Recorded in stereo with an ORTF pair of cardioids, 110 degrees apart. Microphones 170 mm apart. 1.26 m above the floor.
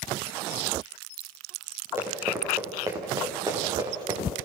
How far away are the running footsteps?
About 7 m.